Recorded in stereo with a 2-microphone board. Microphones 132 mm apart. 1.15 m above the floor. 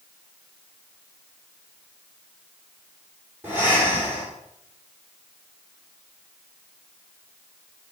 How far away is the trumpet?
No trumpet in this recording.